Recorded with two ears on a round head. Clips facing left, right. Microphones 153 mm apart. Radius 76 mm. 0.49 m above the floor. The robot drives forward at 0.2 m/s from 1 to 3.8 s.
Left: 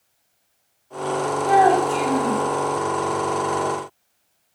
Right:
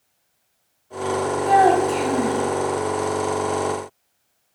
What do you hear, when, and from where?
1.4 s a child speaking: 25° right (ahead or behind), 1.0 m